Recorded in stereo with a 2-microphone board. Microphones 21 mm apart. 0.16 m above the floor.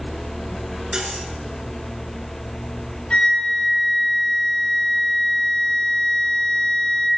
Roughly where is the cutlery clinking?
Right.